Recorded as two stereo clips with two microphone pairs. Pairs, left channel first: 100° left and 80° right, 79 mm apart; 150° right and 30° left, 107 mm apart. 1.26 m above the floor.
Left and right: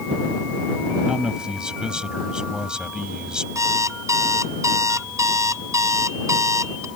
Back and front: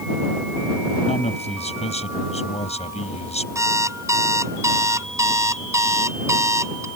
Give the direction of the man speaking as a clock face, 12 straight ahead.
5 o'clock.